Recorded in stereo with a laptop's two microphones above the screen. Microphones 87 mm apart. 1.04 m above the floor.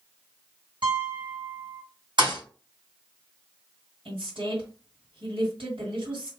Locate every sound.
0.8 s a piano: 70° right (ahead or behind), 1.8 m
2.2 s a thud: 65° right (ahead or behind), 1.7 m
4.0 s a woman speaking: 80° right, 2 m